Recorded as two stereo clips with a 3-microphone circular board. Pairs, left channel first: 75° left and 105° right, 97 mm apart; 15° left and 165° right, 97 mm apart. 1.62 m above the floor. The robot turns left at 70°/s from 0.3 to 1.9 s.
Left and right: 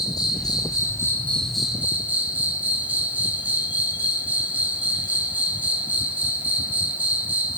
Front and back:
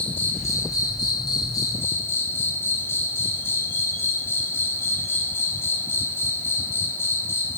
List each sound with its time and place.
0.0 s an insect: 75° left, 1.2 m; by 7.6 s 40° right, 1.2 m